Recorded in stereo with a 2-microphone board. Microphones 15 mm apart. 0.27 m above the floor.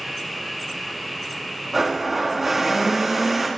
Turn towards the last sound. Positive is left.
turn(degrees=-10)  # may be behind; listen again after turning